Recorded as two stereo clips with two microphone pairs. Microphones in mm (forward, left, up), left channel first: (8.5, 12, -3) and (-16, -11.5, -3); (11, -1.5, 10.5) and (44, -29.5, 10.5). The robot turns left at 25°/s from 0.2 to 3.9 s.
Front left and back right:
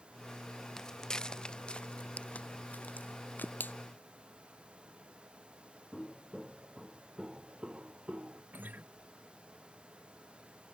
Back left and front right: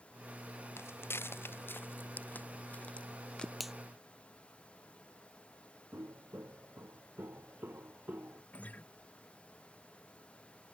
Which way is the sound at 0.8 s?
120° left.